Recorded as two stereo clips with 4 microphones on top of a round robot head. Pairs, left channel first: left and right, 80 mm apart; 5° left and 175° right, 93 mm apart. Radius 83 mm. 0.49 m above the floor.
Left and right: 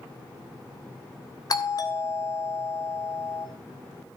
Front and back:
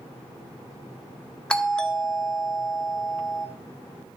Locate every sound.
1.5 s a doorbell: 80° left, 1.9 m